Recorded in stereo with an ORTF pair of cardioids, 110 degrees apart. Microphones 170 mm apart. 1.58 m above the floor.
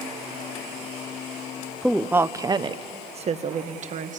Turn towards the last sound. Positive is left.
turn(degrees=-50)